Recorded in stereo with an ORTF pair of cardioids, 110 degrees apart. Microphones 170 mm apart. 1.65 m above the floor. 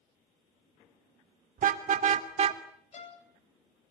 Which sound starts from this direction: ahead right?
A car horn, at 1.6 s.